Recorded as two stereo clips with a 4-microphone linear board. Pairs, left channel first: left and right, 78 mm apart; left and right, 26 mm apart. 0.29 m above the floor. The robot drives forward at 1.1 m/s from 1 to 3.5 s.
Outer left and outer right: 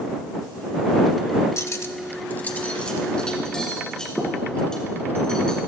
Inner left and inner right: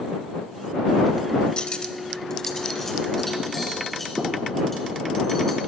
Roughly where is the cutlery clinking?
Left.